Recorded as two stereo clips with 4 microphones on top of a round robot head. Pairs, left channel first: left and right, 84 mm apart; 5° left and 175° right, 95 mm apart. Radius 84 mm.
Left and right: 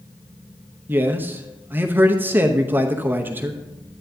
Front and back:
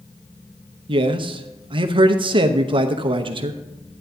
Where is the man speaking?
155° right, 0.8 m.